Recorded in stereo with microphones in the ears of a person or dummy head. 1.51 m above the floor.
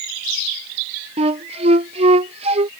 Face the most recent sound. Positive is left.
turn(degrees=-30)  # may be behind; listen again after turning